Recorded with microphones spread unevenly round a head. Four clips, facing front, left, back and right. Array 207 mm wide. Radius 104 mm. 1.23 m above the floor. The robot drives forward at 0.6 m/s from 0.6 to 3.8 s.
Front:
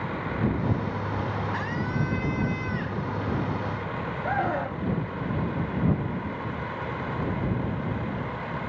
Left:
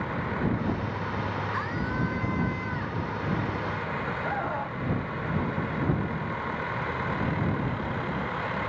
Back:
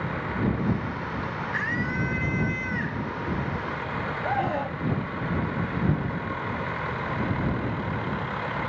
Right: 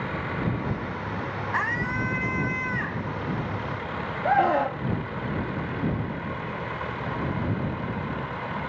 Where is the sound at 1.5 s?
55° right; by 3.1 s 60° right.